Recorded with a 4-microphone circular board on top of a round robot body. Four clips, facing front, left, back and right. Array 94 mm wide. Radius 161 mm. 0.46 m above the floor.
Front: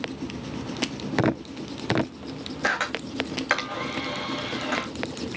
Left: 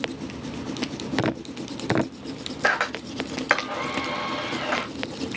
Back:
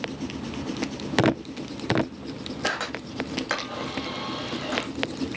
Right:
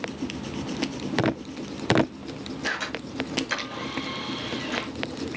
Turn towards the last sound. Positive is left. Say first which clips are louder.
# left 9 dB, front 4 dB
turn(degrees=75)